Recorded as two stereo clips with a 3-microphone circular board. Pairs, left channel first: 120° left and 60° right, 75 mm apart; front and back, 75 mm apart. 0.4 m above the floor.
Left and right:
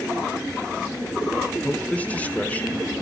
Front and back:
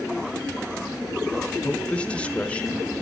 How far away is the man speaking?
About 1.1 m.